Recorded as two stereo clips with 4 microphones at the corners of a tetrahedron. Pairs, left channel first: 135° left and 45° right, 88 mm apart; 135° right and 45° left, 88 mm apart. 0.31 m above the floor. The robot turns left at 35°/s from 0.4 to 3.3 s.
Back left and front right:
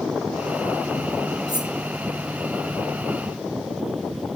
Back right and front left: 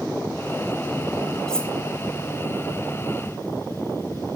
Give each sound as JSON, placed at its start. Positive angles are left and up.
{"t": 1.5, "sound": "cutlery clinking", "azimuth_deg": -50, "distance_m": 1.3}